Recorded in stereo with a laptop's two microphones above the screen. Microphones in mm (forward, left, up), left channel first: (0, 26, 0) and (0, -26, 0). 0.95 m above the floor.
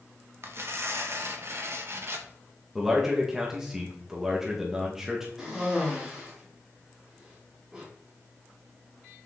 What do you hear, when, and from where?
0.4 s tearing paper: 50° right (ahead or behind), 0.7 m
2.8 s a man speaking: 5° right (ahead or behind), 1.0 m
5.4 s a cough: 5° right (ahead or behind), 2.5 m